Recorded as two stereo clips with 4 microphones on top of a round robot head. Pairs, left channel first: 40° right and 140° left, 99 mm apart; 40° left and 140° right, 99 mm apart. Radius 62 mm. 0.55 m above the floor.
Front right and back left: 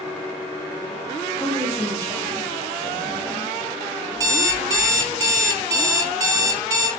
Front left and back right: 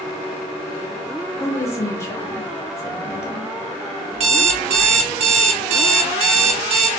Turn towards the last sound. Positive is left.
turn(degrees=-165)